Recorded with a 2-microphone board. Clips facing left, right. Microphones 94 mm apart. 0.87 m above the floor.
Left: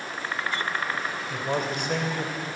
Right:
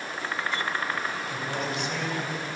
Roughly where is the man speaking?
Left.